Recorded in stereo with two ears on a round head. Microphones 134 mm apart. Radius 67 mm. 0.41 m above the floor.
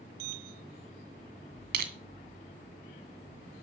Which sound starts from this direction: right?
Crushing, at 1.7 s.